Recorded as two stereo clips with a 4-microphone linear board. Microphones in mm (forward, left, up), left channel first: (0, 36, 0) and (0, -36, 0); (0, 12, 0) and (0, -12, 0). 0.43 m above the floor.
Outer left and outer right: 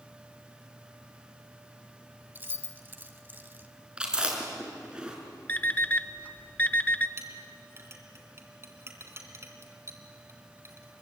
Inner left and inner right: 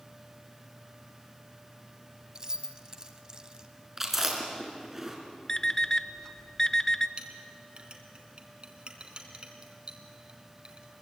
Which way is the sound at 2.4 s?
30° right (ahead or behind).